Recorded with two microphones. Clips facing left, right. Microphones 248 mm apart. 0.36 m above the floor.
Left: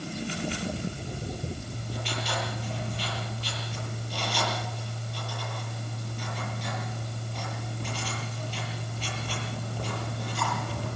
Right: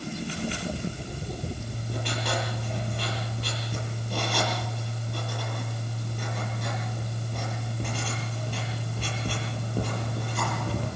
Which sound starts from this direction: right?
Writing, at 1.6 s.